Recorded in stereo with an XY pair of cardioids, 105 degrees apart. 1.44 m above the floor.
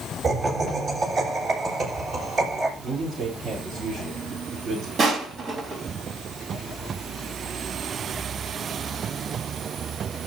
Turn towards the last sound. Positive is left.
turn(degrees=-55)